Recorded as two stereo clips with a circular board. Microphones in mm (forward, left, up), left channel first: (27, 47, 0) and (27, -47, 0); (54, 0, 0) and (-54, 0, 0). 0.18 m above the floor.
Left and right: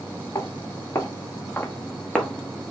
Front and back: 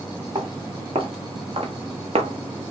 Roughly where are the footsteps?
Behind left.